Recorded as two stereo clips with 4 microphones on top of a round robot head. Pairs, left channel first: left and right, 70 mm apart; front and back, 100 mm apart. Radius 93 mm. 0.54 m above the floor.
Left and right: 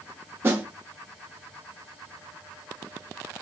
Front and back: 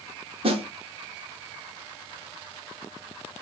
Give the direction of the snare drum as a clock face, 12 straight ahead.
5 o'clock.